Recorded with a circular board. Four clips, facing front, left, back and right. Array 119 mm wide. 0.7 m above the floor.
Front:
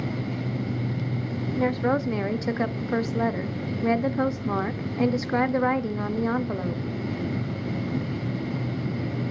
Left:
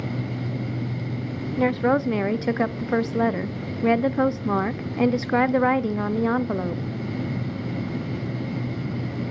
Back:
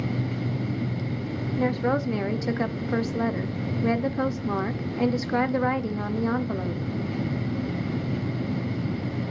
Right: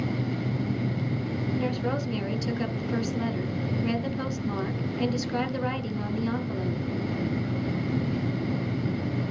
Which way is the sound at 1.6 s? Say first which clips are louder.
Left 11 dB, front 1 dB; 85° left.